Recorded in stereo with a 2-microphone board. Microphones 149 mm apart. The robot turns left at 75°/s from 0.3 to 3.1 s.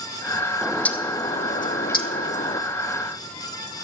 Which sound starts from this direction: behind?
A bird, at 0.6 s.